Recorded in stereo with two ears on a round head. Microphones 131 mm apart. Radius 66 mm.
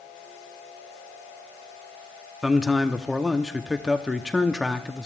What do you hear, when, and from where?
2.4 s a man speaking: 5° right (ahead or behind), 0.7 m